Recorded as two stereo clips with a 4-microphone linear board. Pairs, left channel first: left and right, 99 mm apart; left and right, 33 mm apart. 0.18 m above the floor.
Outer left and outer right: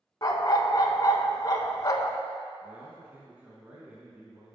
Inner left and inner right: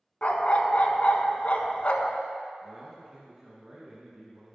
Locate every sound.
0.2 s a dog barking: 40° left (ahead or behind), 0.5 m
2.6 s a man speaking: 15° right (ahead or behind), 1.4 m